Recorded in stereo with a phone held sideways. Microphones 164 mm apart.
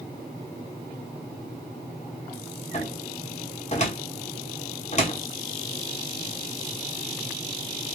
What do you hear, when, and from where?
2.7 s a cupboard door: 45° left (ahead or behind), 1.0 m